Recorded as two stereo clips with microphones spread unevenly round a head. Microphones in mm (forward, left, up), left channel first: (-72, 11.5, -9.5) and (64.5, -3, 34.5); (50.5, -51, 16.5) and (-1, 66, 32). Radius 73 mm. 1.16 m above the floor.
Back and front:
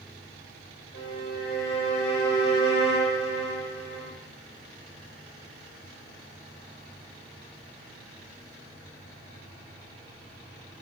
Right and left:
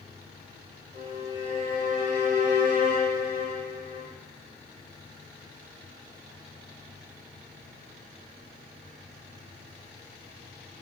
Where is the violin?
155° left, 4 m.